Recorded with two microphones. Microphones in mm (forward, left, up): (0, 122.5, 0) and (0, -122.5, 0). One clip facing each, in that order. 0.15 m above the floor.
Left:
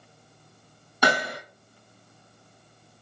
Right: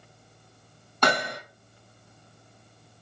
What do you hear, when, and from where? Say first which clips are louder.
1.0 s hammering: left 1 dB; 10° left (ahead or behind), 4 m